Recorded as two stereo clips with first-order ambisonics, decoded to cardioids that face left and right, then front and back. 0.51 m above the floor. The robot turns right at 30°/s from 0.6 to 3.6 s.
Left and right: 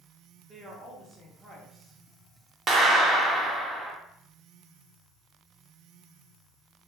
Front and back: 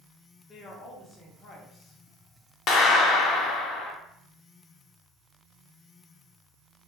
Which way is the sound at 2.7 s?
35° right.